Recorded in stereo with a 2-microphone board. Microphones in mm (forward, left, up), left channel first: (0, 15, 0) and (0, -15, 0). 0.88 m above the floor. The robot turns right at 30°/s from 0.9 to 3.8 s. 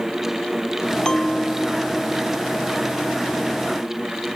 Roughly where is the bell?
Behind left.